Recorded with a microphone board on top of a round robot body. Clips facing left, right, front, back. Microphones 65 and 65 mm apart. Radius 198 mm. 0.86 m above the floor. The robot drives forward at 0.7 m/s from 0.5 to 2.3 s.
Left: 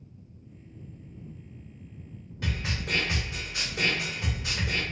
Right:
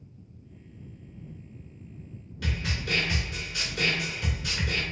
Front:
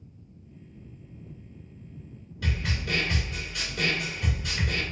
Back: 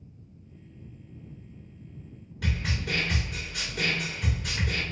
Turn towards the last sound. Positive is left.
turn(degrees=160)